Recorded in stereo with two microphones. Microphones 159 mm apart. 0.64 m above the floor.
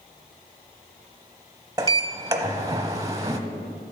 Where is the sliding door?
25° right (ahead or behind), 0.9 m.